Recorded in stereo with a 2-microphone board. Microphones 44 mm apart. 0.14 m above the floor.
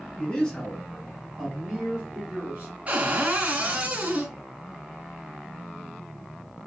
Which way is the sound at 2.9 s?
35° right (ahead or behind).